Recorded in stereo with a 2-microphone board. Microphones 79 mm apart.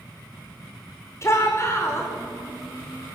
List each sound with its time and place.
1.2 s a shout: 35° left (ahead or behind), 5 m